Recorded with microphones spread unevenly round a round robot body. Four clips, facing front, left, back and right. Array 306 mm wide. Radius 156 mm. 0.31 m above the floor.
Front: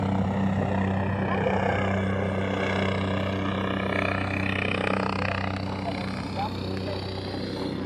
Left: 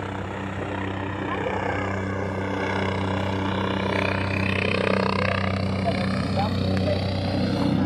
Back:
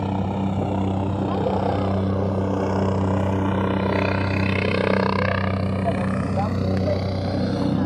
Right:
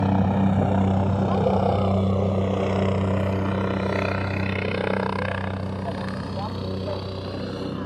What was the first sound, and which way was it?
A helicopter, 85° right.